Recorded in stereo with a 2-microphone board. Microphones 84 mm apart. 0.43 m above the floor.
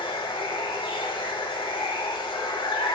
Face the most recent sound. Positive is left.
turn(degrees=85)